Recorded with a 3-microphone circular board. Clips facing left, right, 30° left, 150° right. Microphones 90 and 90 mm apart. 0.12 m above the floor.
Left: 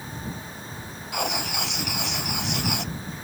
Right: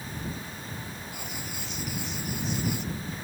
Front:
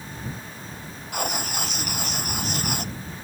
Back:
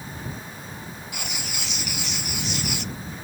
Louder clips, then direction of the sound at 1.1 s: Left 10 dB, front 10 dB; 75° left.